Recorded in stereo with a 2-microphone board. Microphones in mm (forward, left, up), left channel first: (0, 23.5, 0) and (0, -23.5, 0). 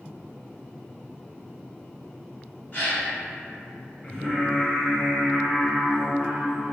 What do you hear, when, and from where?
2.7 s a gasp: 40° left (ahead or behind), 1.2 m
4.0 s singing: 20° left (ahead or behind), 1.8 m